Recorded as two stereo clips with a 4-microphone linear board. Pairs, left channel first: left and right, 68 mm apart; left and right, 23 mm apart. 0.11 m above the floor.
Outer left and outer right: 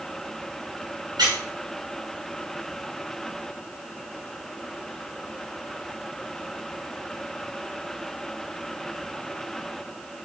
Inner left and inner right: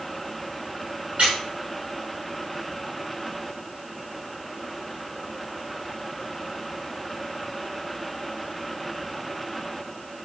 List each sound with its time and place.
1.2 s a squeak: 75° right (ahead or behind), 5.5 m